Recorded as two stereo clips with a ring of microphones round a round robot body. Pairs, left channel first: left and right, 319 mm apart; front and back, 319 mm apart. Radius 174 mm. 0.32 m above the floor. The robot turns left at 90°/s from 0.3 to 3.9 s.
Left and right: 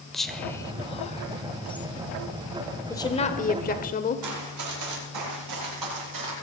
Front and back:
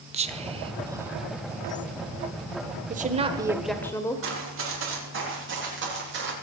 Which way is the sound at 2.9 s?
160° left.